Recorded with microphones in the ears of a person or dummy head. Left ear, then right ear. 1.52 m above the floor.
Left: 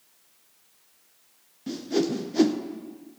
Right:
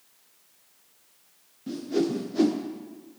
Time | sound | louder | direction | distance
1.7 | a whoosh | left 1 dB | 25° left (ahead or behind) | 0.6 m